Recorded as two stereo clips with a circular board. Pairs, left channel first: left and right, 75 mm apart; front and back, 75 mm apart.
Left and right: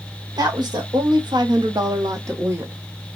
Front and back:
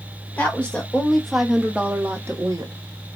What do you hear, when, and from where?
0.4 s a woman speaking: 70° right, 1.2 m; by 2.7 s 150° right, 0.8 m